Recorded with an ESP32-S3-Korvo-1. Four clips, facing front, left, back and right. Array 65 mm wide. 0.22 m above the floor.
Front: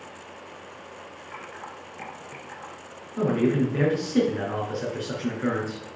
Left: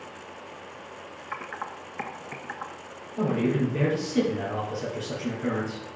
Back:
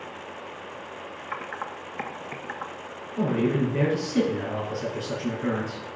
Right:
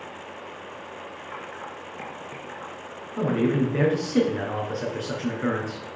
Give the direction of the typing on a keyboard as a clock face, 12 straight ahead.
7 o'clock.